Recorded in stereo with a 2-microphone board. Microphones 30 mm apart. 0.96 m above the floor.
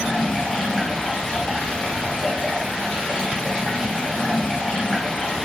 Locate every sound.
0.0 s running water: 25° left (ahead or behind), 0.7 m